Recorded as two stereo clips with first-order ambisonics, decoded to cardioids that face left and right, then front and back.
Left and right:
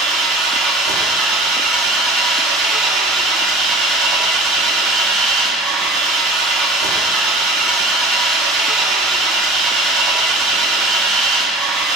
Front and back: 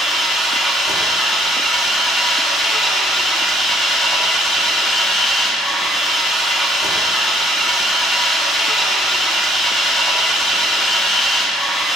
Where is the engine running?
85° right, 1.6 m.